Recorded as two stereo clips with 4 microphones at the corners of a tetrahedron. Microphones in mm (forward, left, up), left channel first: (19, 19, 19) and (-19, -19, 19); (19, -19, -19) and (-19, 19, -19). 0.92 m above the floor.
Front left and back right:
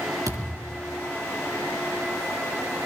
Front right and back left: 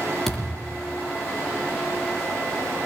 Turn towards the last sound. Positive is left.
turn(degrees=-125)